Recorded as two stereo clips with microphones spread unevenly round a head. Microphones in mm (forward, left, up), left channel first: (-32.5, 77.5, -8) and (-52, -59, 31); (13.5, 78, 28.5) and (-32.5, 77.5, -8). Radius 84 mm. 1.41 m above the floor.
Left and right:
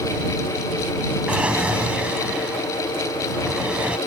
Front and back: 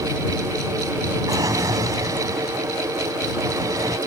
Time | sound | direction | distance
1.3 | a drawer | 175° right | ?